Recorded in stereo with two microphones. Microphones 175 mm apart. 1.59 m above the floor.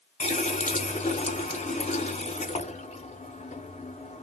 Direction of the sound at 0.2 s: 40° left (ahead or behind).